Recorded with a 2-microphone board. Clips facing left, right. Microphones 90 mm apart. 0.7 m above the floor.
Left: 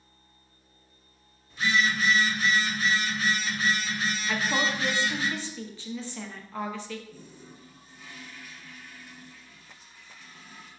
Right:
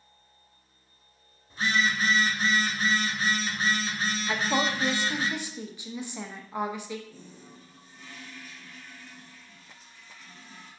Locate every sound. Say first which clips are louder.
1.5 s a phone buzzing: left 1 dB; 35° right (ahead or behind), 0.9 m
4.3 s a woman speaking: right 1 dB; 15° right (ahead or behind), 0.6 m
7.1 s a toilet flushing: left 1 dB; 5° left (ahead or behind), 1.2 m